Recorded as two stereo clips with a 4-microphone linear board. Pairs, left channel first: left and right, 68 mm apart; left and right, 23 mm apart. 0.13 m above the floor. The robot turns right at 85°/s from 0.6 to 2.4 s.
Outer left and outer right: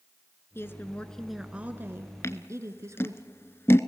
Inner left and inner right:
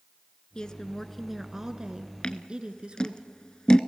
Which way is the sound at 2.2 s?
40° left (ahead or behind).